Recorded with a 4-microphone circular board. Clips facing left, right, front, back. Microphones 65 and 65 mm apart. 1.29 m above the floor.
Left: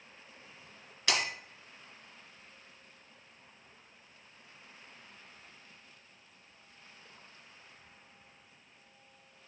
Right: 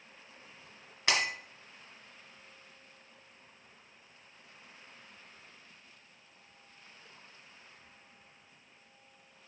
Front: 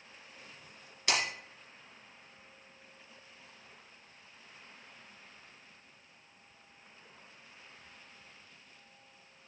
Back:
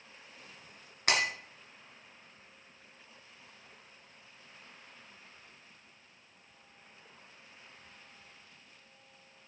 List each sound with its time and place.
1.1 s breaking glass: 155° right, 2.5 m